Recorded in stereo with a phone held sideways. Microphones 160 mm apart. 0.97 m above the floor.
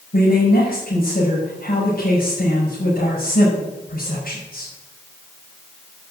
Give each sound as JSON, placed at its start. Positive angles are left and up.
{"t": 0.1, "sound": "a man speaking", "side_deg": 65, "distance_m": 5.0}